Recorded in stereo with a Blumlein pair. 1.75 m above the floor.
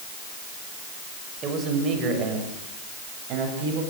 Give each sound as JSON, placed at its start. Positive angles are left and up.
{"t": 1.4, "sound": "a man speaking", "azimuth_deg": -25, "distance_m": 6.5}